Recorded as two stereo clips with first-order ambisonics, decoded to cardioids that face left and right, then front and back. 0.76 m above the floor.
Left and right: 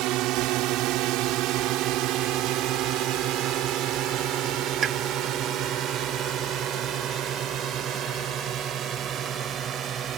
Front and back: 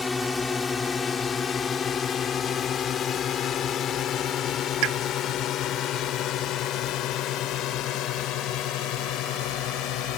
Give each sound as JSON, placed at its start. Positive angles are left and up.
{"t": 0.0, "sound": "a drone", "azimuth_deg": -75}
{"t": 4.8, "sound": "a pop", "azimuth_deg": -155}